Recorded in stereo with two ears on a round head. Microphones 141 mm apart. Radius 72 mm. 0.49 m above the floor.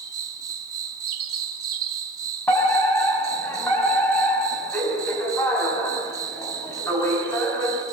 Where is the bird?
65° right (ahead or behind), 4.5 m.